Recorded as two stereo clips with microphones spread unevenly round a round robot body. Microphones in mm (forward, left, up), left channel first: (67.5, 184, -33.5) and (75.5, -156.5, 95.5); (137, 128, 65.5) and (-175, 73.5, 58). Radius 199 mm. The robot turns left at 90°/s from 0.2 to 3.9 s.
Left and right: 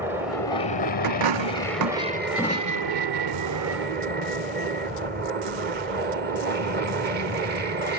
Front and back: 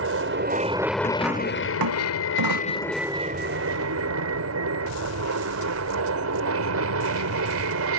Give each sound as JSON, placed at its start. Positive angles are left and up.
{"t": 0.0, "sound": "an aircraft", "azimuth_deg": 170}
{"t": 1.0, "sound": "a dropped coin", "azimuth_deg": -60}